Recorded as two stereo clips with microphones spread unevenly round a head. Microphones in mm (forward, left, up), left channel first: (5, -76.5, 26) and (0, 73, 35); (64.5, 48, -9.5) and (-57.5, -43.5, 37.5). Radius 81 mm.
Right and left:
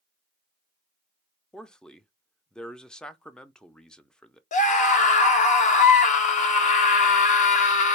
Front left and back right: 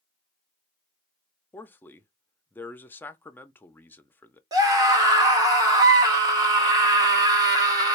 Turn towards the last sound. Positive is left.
turn(degrees=-70)